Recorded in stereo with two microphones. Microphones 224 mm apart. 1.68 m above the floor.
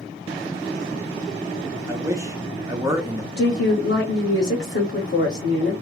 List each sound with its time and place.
1.9 s a man speaking: 15° right (ahead or behind), 0.7 m
3.4 s a woman speaking: 60° left (ahead or behind), 0.9 m